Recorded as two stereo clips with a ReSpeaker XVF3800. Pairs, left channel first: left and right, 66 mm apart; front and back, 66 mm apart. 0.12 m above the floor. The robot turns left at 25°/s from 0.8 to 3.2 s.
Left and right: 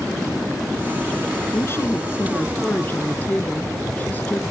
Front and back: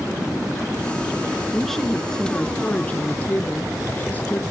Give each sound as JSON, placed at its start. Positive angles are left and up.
{"t": 1.5, "sound": "a woman speaking", "azimuth_deg": 85, "distance_m": 1.4}